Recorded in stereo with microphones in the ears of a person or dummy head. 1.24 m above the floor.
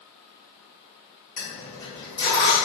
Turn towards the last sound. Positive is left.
turn(degrees=30)  # may be behind; listen again after turning